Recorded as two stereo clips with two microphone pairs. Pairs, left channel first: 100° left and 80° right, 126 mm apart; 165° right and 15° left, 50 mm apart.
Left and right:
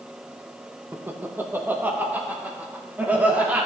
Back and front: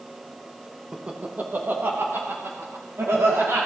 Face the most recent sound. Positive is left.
turn(degrees=0)